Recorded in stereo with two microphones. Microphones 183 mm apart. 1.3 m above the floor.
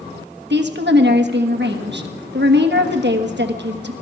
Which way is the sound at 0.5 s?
75° right (ahead or behind).